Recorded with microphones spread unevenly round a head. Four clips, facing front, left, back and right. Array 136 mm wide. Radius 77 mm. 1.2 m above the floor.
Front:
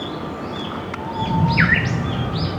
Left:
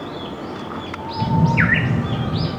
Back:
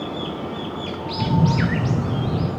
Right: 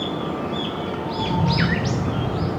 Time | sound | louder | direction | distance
1.2 | a camera shutter | left 5 dB, front 1 dB | 145° left | 2.5 m